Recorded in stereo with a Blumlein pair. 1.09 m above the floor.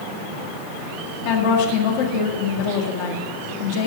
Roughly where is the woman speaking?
Ahead left.